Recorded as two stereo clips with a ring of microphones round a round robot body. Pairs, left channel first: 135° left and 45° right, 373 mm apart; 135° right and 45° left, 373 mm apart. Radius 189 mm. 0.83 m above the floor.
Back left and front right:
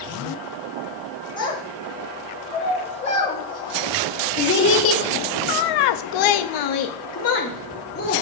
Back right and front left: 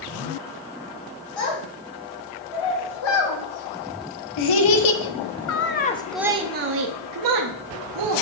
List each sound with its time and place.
1.4 s a child speaking: 145° right, 3 m; by 8.2 s 65° left, 1.4 m